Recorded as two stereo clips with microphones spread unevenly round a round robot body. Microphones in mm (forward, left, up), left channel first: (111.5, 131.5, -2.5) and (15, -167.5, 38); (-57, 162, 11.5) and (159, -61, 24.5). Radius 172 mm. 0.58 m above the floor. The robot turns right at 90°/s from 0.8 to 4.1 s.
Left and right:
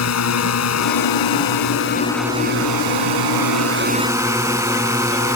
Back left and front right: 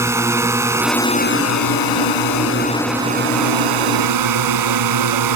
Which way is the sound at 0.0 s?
35° left.